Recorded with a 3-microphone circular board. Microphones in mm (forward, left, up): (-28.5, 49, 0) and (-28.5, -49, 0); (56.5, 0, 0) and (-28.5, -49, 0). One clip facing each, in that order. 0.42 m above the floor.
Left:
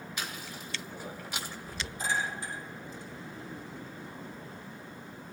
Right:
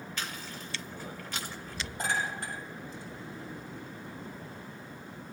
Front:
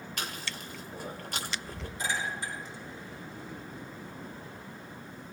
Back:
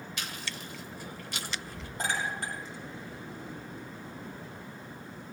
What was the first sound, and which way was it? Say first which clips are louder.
Chewing: even, front 3 dB; 15° left.